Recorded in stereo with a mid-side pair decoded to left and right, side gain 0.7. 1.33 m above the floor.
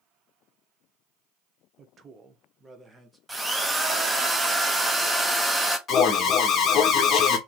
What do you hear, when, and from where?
1.8 s a man speaking: 40° right, 1.0 m; by 3.2 s 5° right, 1.6 m
3.3 s a drill: 10° right, 0.9 m
5.9 s an alarm: 40° left, 1.3 m